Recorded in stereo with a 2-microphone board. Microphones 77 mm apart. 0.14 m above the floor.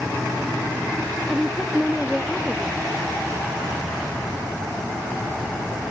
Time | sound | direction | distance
1.3 | a woman speaking | 5° right (ahead or behind) | ?